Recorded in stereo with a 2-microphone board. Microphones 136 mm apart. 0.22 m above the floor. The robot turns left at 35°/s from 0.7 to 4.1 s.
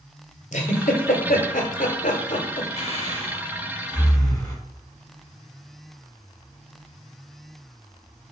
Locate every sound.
0.5 s a giggle: 65° left (ahead or behind), 1.0 m; by 2.7 s 40° left (ahead or behind), 1.0 m
2.8 s breathing: 50° left (ahead or behind), 1.0 m; by 4.5 s 20° left (ahead or behind), 1.0 m